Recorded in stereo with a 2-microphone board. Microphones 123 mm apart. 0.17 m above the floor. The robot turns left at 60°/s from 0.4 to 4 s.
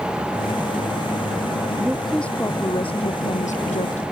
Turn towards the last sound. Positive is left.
turn(degrees=65)